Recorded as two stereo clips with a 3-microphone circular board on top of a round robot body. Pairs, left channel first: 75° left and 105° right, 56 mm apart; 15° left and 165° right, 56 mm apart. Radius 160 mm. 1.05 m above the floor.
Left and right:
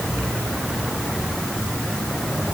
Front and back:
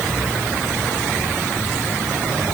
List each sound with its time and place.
Only background noise.